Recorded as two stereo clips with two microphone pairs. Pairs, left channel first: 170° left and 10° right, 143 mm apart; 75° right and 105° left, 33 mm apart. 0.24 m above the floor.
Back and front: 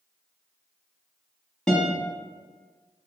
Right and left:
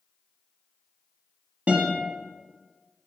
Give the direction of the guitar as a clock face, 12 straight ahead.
9 o'clock.